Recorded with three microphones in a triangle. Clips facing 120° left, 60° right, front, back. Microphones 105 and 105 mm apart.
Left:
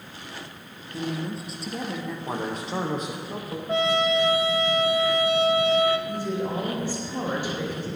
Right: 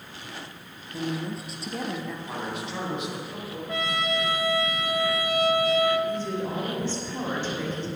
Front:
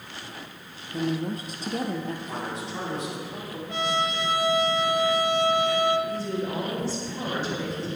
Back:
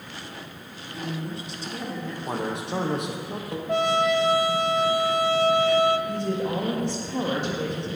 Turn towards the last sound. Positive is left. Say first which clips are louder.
# left 1 dB, back 2 dB
turn(degrees=-165)